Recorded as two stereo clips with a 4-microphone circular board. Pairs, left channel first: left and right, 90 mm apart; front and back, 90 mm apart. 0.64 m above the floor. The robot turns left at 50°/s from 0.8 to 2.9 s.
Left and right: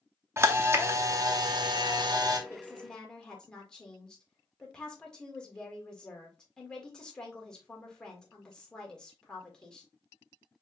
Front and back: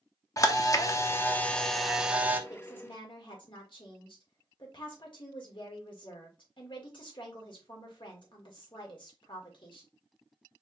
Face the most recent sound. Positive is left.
turn(degrees=10)